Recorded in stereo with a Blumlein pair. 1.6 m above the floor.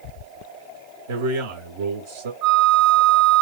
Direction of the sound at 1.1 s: 60° right.